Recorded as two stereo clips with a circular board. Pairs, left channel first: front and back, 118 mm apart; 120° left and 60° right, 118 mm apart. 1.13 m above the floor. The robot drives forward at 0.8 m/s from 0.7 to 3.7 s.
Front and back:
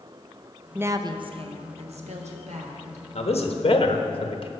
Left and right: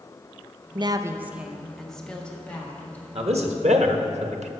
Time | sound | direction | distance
0.8 | a woman speaking | 105° right | 0.5 m
3.1 | a man speaking | 30° right | 1.4 m